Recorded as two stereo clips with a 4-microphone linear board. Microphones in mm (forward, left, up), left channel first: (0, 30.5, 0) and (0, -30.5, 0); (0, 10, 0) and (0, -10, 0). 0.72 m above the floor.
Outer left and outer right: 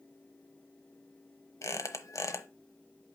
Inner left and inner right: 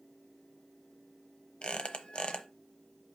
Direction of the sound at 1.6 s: 65° left (ahead or behind).